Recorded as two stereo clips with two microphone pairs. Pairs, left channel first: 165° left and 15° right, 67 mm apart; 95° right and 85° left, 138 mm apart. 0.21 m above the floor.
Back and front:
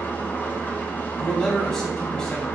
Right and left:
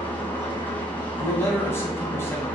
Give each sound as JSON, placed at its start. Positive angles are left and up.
{"t": 0.0, "sound": "an engine running", "azimuth_deg": -160, "distance_m": 0.9}
{"t": 1.2, "sound": "a man speaking", "azimuth_deg": -125, "distance_m": 1.0}